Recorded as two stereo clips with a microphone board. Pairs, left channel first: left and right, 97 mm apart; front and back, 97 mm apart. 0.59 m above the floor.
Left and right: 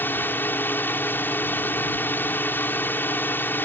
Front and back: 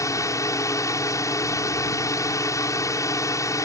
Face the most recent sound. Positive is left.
turn(degrees=30)